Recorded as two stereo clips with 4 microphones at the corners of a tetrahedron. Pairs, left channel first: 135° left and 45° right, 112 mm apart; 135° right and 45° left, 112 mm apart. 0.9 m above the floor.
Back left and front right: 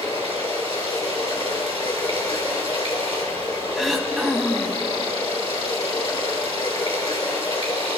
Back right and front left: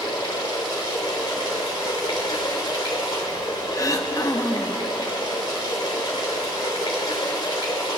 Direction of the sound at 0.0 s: 175° left.